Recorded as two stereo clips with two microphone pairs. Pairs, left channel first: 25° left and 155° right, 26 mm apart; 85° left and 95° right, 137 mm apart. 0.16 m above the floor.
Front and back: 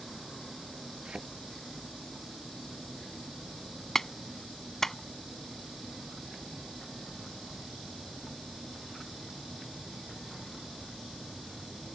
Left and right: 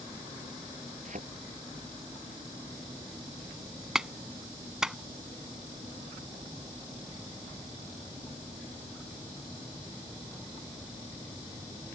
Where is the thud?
105° right.